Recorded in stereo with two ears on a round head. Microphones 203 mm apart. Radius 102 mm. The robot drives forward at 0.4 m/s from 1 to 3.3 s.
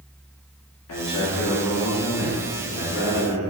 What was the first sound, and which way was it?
A man speaking, 75° left (ahead or behind).